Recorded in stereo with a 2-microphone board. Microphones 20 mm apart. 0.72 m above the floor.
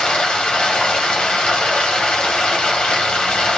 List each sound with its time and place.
0.0 s running water: 65° left (ahead or behind), 1.8 m